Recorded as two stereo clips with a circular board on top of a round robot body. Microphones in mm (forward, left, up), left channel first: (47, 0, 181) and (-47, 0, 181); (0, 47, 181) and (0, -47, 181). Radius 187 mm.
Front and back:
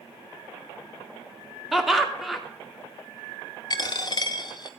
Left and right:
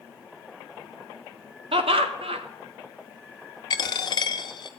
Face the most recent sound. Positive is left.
turn(degrees=45)